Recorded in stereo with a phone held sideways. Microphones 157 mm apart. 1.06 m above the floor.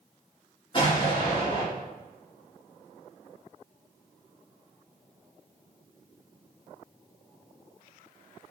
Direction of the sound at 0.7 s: 30° left (ahead or behind).